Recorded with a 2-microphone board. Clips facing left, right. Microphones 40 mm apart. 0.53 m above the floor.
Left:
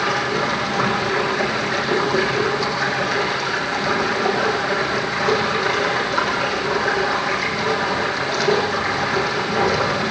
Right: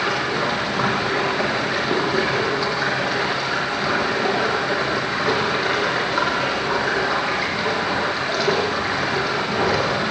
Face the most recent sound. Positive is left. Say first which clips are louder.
# left 1 dB
turn(degrees=-15)  # may be behind; listen again after turning